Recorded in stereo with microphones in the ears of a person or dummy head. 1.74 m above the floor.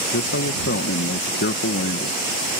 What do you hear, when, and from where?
0.1 s a man speaking: 50° left (ahead or behind)